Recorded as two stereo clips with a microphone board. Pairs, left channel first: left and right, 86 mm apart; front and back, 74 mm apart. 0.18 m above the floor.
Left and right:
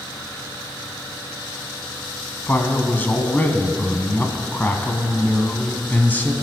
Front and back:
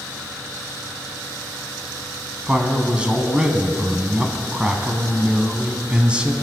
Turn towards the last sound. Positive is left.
turn(degrees=125)